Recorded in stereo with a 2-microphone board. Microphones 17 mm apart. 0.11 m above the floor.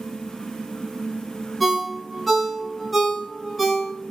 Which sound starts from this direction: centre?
A ringtone, at 1.6 s.